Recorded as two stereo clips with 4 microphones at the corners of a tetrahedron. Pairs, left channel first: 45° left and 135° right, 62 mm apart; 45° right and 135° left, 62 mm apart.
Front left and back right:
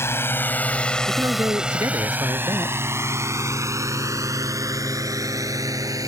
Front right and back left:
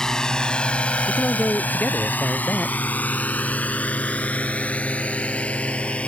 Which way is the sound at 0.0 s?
30° left.